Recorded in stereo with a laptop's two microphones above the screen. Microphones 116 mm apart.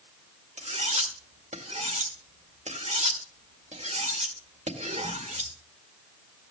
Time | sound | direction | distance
0.6 | cutlery clinking | 80° right | 2 m